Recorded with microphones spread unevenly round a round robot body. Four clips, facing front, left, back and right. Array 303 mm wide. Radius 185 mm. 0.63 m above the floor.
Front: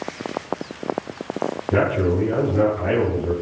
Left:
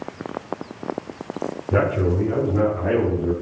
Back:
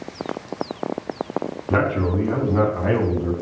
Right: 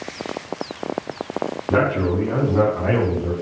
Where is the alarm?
I don't hear an alarm.